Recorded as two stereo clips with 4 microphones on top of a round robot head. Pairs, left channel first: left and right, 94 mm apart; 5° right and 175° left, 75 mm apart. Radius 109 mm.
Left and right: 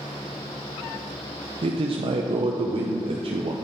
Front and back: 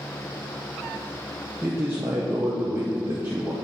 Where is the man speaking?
115° right, 0.6 m.